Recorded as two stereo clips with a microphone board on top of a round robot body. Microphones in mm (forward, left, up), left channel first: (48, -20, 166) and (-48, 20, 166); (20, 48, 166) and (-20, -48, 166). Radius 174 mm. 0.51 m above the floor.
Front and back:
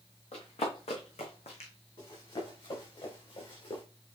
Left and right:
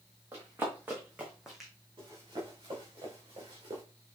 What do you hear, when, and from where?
0.3 s running footsteps: 45° right, 3 m; by 1.7 s 20° right, 1.7 m
2.0 s running footsteps: 65° right, 5 m; by 3.8 s 60° right, 3 m